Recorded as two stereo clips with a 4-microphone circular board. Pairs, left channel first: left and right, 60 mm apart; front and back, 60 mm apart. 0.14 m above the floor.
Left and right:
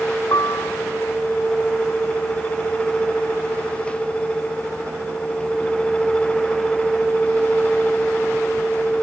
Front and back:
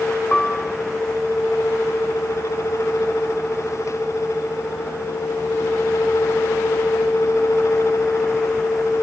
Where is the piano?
80° left.